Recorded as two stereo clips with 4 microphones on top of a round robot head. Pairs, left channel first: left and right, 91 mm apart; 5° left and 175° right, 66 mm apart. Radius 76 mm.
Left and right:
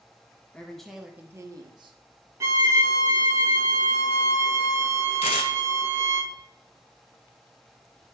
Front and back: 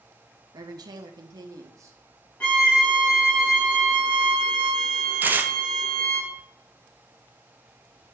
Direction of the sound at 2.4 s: 60° right.